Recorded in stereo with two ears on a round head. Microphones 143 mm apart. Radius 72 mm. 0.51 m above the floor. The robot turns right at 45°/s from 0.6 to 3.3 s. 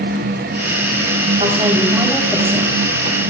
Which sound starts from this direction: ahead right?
A woman speaking, at 1.4 s.